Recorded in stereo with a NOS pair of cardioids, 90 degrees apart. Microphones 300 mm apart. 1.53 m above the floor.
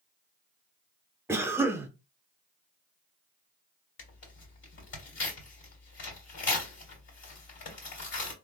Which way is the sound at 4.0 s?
40° left.